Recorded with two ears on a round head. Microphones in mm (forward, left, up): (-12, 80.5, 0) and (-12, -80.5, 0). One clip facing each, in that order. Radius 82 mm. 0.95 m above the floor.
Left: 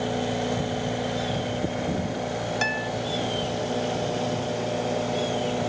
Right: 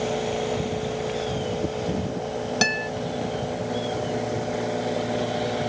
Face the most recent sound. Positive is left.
turn(degrees=-45)  # may be behind; listen again after turning